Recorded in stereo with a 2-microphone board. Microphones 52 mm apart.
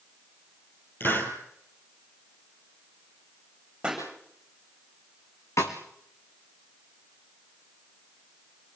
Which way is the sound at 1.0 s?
45° left (ahead or behind).